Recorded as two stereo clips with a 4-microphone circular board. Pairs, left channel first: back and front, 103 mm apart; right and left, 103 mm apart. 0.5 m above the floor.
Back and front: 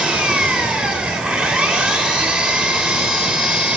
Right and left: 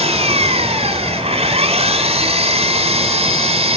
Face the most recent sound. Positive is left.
turn(degrees=80)